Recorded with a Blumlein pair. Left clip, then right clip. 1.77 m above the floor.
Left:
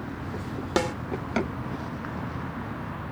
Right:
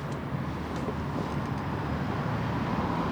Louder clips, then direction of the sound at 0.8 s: Left 11 dB; 35° left.